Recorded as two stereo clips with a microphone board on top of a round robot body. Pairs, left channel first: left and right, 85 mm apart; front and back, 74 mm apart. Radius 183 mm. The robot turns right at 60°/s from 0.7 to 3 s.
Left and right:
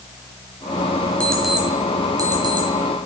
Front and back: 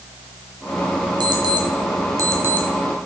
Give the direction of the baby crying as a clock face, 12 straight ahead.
I don't hear a baby crying.